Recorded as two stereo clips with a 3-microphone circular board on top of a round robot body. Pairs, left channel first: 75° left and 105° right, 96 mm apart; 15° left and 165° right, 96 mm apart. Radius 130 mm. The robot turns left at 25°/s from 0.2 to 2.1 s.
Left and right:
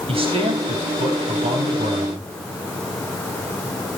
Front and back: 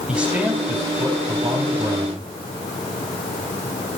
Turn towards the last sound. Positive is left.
turn(degrees=-130)